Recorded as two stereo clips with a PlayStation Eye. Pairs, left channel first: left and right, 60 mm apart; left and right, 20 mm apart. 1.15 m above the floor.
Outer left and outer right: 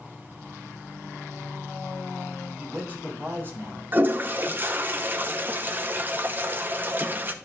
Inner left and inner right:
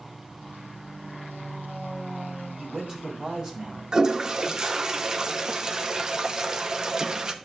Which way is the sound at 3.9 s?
35° right (ahead or behind).